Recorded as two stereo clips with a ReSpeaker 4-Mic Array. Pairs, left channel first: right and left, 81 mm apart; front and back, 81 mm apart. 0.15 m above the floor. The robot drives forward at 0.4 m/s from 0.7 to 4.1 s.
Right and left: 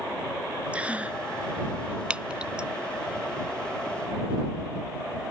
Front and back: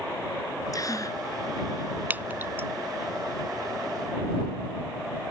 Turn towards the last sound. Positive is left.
turn(degrees=165)